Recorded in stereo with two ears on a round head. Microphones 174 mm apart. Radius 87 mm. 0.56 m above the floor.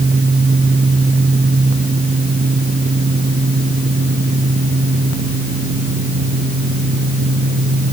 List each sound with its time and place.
Only background noise.